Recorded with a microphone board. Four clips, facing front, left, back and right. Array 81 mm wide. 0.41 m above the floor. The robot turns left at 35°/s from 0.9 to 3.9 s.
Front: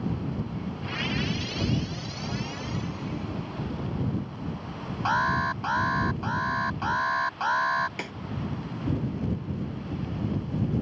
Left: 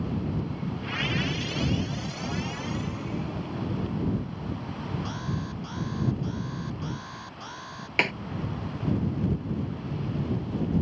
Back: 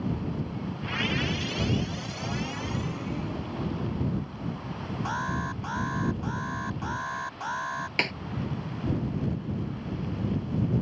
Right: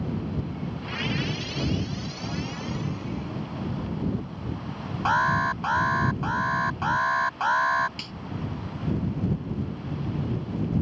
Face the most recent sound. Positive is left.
turn(degrees=110)